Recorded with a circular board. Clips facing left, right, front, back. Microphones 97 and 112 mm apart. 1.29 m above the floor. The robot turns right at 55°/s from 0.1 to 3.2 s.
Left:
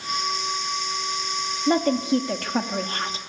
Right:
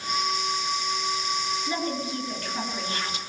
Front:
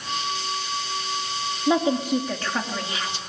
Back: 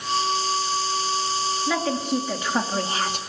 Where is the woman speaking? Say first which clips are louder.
Left 9 dB, front 6 dB; 60° left, 2.5 m; by 3.2 s 145° left, 2.5 m.